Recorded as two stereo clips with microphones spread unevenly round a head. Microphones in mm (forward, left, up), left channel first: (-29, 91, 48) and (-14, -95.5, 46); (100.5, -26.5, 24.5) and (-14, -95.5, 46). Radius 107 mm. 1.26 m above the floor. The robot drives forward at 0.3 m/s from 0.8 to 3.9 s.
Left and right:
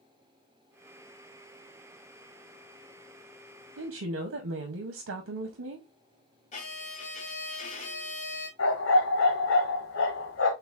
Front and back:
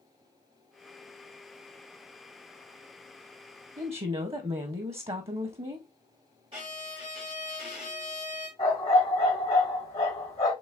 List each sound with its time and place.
3.8 s a woman speaking: 95° right, 0.7 m
6.5 s a violin: 150° left, 1.5 m
8.6 s a dog barking: 95° left, 1.8 m